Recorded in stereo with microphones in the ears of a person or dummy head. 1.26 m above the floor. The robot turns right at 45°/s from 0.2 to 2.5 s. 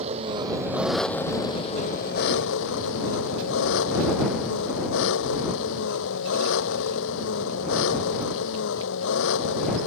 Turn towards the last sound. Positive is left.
turn(degrees=70)